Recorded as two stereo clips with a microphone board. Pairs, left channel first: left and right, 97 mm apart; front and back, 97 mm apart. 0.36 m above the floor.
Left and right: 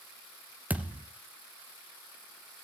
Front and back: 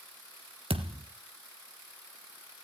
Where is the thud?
165° right, 2 m.